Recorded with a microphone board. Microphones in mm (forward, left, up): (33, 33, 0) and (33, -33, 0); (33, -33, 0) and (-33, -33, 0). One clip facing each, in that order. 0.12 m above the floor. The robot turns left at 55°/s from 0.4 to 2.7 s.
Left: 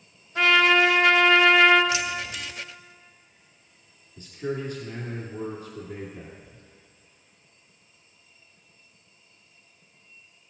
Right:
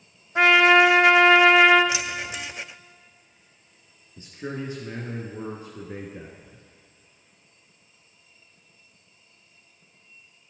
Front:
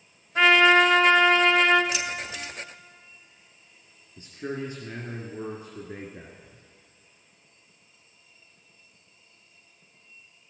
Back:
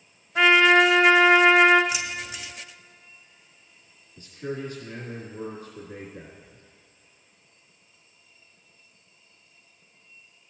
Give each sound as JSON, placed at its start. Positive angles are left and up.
{"t": 0.3, "sound": "a trumpet", "azimuth_deg": -80, "distance_m": 1.2}
{"t": 1.9, "sound": "keys jangling", "azimuth_deg": -115, "distance_m": 0.7}
{"t": 4.2, "sound": "a man speaking", "azimuth_deg": -50, "distance_m": 1.3}
{"t": 6.4, "sound": "whispering", "azimuth_deg": -25, "distance_m": 1.5}